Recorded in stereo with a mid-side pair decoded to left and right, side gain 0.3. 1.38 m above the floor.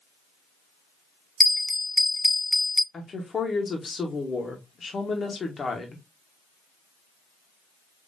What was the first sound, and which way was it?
A bell, 15° left.